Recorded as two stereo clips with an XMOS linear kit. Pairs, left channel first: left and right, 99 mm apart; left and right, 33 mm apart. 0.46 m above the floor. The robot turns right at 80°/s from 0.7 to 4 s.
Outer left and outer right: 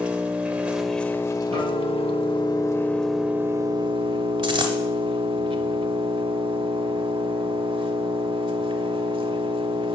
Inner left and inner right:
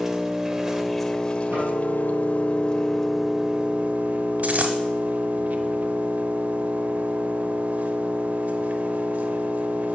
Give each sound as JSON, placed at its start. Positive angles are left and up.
{"t": 0.0, "sound": "an engine running", "azimuth_deg": -15, "distance_m": 0.9}
{"t": 1.5, "sound": "a guitar", "azimuth_deg": -95, "distance_m": 3.5}
{"t": 4.4, "sound": "a dropped coin", "side_deg": -60, "distance_m": 1.4}